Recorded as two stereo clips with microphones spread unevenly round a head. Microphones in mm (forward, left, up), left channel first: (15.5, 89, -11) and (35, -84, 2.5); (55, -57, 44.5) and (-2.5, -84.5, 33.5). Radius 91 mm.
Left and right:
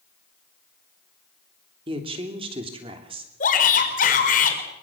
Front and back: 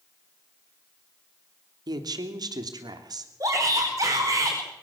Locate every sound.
1.9 s a woman speaking: 145° right, 3 m
3.4 s a shout: 145° left, 5 m